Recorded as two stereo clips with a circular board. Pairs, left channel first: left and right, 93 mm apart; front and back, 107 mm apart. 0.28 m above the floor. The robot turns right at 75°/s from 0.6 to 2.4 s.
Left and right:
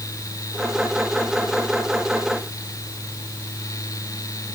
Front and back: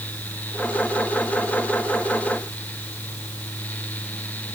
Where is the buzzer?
I don't hear a buzzer.